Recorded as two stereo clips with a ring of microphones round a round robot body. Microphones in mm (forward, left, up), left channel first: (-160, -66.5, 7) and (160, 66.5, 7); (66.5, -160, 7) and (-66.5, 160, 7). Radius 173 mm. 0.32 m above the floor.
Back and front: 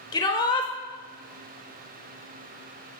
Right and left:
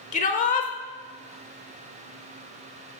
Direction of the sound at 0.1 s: 100° right.